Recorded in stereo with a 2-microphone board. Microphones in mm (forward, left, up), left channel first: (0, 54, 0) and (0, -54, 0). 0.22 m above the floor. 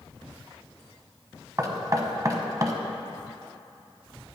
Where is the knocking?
35° right (ahead or behind), 0.9 m.